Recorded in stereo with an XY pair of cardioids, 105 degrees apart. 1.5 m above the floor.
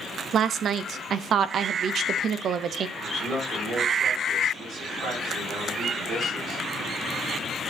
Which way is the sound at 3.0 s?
65° right.